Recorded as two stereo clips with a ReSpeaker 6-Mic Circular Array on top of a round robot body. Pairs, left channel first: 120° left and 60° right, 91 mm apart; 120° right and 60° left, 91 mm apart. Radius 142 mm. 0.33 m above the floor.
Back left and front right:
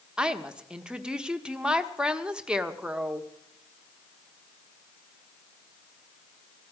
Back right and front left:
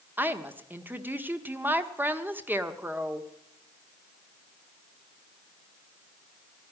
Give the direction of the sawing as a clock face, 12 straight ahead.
No sawing in this recording.